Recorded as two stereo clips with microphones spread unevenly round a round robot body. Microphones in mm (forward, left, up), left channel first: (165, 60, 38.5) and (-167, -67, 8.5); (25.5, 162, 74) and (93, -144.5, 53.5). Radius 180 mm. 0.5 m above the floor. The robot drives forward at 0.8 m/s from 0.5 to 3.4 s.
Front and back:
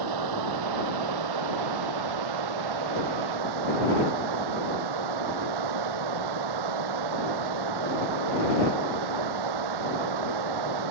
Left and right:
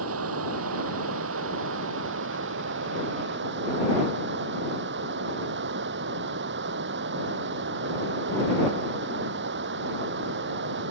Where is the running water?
130° right; by 10.9 s 135° right.